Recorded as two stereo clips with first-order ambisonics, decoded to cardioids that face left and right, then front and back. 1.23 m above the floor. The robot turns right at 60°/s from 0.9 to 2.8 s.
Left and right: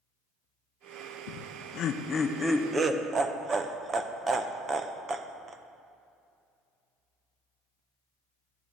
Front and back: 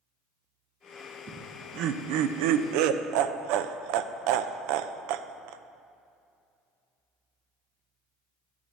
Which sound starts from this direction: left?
Laughter, at 1.3 s.